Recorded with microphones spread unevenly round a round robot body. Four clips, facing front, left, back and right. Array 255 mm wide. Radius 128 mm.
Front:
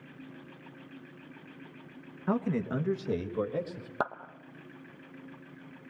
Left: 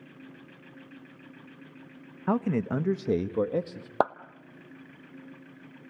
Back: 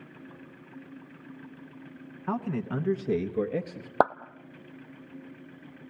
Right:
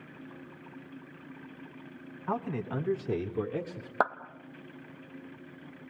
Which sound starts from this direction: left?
A man speaking, at 2.3 s.